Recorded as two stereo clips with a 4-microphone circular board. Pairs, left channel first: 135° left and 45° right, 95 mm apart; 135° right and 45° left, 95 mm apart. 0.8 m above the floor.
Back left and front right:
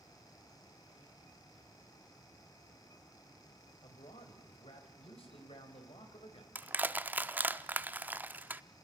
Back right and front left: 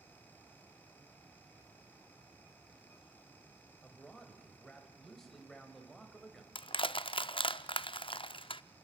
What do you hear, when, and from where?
3.8 s a man speaking: 140° left, 3.5 m
6.5 s crushing: 115° right, 0.5 m